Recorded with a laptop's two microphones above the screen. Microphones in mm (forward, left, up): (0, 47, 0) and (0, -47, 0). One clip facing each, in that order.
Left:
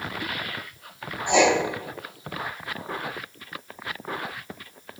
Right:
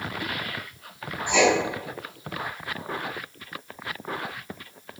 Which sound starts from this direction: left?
Writing, at 1.3 s.